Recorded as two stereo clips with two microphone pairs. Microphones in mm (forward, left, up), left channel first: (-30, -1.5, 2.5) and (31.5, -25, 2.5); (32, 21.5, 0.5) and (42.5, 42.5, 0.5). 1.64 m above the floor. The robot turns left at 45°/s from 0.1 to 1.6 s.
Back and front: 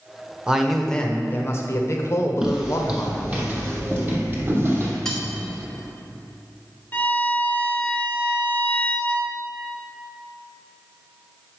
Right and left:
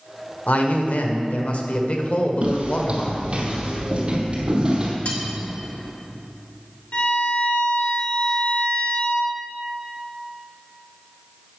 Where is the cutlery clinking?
120° right, 1.5 m.